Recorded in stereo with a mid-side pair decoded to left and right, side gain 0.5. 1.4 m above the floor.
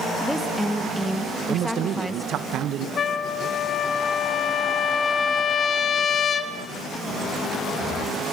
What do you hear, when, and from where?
0.2 s a woman speaking: straight ahead, 2 m
1.5 s a man speaking: 65° right, 1.4 m
3.0 s a trumpet: 45° left, 1.5 m